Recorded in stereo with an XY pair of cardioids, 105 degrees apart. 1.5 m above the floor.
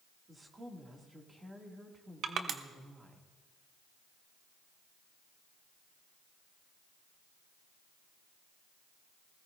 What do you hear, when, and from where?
0.3 s a woman speaking: 25° right, 2.5 m
2.2 s crushing: 65° right, 1.1 m